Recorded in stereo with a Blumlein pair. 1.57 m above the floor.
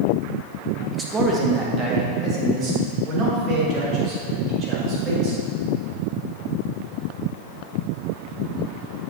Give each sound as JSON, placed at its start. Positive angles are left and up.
{"t": 0.9, "sound": "a man speaking", "azimuth_deg": -10, "distance_m": 1.4}